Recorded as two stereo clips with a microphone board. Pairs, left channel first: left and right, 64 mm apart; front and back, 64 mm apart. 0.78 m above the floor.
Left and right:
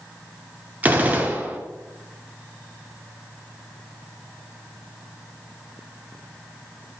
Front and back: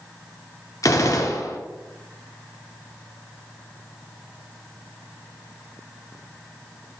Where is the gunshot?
25° right, 0.5 m.